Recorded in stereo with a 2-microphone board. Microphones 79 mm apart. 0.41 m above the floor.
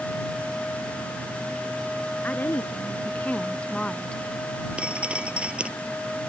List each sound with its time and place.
2.2 s a woman speaking: 25° left (ahead or behind); by 4.2 s 10° left (ahead or behind)
4.8 s dripping: 15° right (ahead or behind)